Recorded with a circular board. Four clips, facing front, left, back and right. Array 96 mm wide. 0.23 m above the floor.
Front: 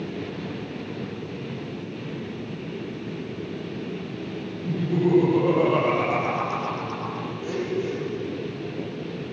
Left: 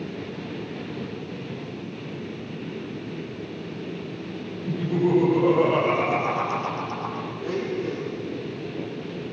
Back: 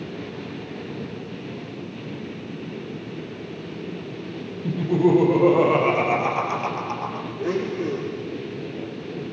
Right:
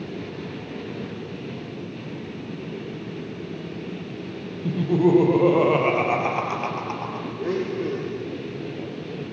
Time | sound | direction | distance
4.6 | laughter | 125° right | 5.5 m
7.4 | a blender | 145° right | 6 m